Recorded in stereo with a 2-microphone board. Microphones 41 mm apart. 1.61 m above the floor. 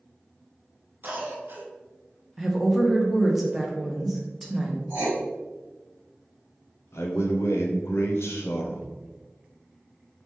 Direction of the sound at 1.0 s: 45° right (ahead or behind).